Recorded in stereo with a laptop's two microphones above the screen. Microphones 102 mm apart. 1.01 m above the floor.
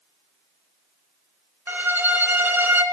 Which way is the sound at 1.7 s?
20° right (ahead or behind).